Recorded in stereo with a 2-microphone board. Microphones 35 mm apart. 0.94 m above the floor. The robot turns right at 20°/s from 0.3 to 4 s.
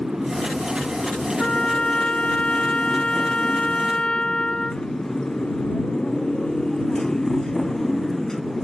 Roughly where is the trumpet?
Left.